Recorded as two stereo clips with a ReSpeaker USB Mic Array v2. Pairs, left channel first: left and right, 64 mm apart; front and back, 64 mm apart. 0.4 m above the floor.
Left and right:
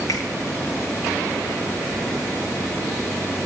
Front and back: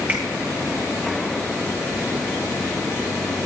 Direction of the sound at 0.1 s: 115° left.